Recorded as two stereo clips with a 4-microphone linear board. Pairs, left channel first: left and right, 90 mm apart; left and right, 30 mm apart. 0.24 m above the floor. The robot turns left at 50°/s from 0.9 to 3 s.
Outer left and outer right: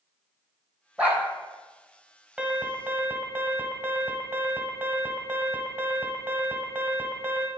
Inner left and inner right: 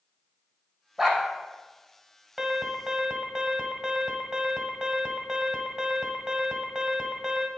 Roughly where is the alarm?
Centre.